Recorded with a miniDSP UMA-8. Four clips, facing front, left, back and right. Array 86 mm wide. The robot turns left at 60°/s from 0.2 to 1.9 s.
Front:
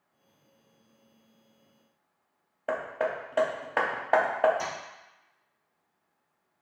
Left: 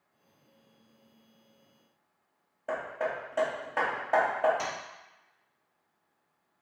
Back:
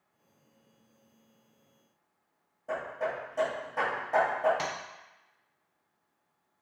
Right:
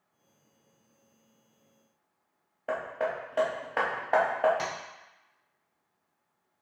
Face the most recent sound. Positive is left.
turn(degrees=-160)